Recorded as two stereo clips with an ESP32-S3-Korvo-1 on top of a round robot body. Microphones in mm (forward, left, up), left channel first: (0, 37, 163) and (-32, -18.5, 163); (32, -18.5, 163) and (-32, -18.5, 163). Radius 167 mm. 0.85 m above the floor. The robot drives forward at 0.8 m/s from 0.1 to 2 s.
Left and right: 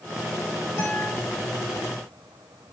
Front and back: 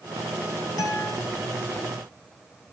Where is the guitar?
10° left, 3.5 m.